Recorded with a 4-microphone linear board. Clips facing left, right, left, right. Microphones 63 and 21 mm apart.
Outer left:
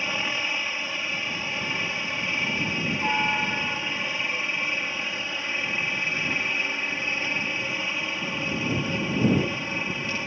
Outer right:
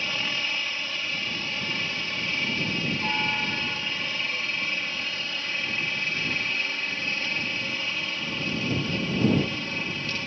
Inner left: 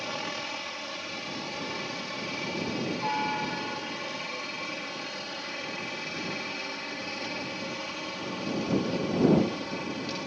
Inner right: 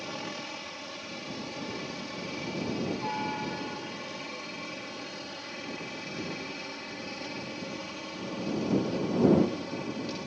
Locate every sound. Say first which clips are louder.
0.0 s a helicopter: outer left 2 dB, inner left 4 dB; 15° left (ahead or behind)